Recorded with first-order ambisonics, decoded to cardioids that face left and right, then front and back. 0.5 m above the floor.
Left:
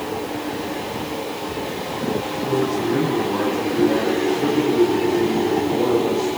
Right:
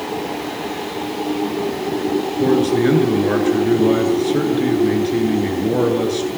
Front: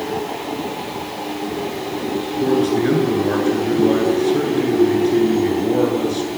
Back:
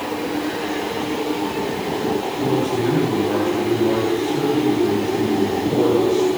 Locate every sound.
2.4 s a man speaking: 65° right, 9.5 m